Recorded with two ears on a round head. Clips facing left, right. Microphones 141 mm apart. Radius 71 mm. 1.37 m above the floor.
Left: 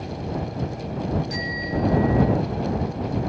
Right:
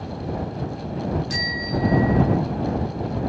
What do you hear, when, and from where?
1.3 s a bicycle bell: 60° right (ahead or behind); by 2.4 s 75° right (ahead or behind)